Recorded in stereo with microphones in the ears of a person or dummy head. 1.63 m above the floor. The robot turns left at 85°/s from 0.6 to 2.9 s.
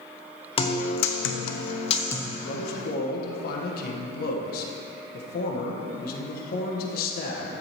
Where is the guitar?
150° left, 0.8 m; by 2.2 s 15° left, 0.8 m.